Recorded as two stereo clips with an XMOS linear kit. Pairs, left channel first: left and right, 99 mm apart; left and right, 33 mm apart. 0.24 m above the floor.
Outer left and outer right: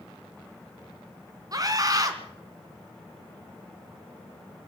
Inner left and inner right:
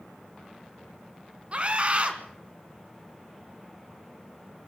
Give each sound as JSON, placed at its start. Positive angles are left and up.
{"t": 1.5, "sound": "a scream", "side_deg": -40, "distance_m": 3.0}